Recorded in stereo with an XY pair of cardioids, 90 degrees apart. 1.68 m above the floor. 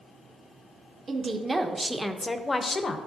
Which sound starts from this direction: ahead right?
A woman speaking, at 1.1 s.